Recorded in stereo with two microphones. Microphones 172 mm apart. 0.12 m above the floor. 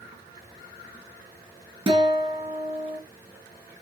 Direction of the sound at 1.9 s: 25° right (ahead or behind).